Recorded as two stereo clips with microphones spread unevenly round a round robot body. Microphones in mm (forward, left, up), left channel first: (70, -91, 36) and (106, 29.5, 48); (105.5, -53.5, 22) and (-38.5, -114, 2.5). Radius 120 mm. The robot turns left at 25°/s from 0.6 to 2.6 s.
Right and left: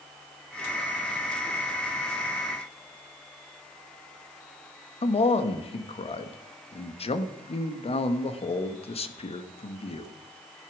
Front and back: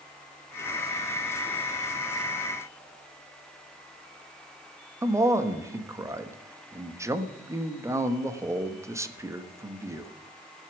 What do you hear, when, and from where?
5.0 s a man speaking: 95° right, 1.4 m